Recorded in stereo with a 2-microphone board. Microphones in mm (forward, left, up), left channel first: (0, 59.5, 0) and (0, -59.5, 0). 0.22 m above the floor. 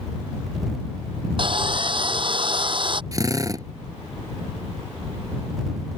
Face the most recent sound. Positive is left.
turn(degrees=-30)  # may be behind; listen again after turning